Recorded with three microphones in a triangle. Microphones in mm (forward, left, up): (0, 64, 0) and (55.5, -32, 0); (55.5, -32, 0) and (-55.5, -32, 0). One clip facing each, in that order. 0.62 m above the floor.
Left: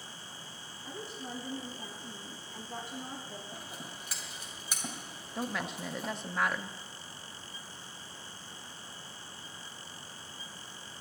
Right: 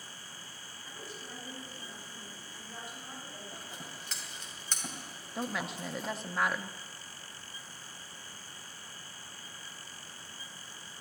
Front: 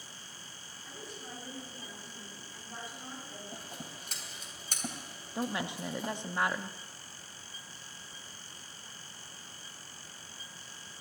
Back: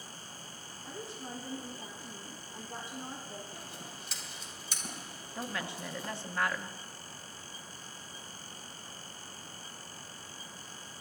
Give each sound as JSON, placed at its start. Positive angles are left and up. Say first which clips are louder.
{"t": 0.8, "sound": "a woman speaking", "louder": "left 5 dB, back 4 dB", "azimuth_deg": 115, "distance_m": 5.0}
{"t": 3.5, "sound": "scissors", "louder": "left 1 dB, front 1 dB", "azimuth_deg": 40, "distance_m": 3.0}
{"t": 5.3, "sound": "a woman speaking", "louder": "even, front 4 dB", "azimuth_deg": 30, "distance_m": 0.5}